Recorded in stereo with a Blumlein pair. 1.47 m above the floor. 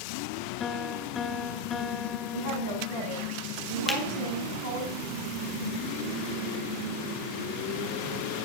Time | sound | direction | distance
0.6 | a piano | 20° left | 0.6 m
2.3 | a woman speaking | 55° left | 6 m
3.9 | a finger snap | 15° left | 1.4 m